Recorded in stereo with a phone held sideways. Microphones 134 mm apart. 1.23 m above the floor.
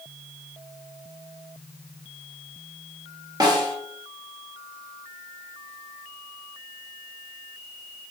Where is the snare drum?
30° right (ahead or behind), 1.1 m.